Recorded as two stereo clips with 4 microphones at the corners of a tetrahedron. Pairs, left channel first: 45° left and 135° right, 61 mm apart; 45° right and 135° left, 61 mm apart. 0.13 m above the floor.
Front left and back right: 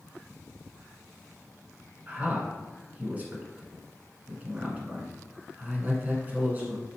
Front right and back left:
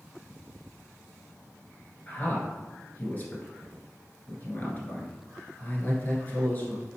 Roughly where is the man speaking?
Right.